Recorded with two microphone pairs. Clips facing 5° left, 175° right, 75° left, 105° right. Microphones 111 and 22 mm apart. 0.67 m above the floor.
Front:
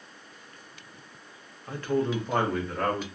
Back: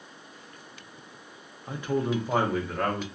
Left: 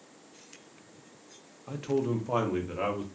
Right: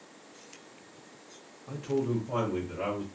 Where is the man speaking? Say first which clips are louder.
Front 1 dB, left 1 dB; 125° left, 0.6 m; by 3.0 s 90° left, 1.1 m.